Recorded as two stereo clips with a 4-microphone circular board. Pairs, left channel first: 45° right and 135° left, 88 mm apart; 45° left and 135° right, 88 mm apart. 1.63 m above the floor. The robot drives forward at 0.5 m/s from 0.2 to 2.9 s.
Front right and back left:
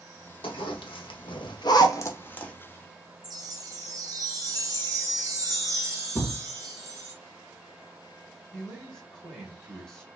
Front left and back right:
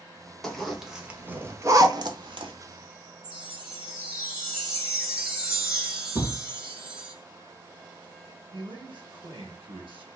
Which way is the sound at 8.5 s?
125° right.